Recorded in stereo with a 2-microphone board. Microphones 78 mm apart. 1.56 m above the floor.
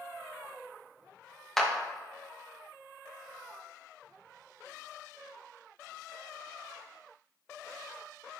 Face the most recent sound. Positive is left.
turn(degrees=5)  # may be behind; listen again after turning